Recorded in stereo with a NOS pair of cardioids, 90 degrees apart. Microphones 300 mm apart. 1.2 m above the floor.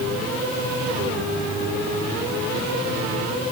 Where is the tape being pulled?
No tape being pulled in this recording.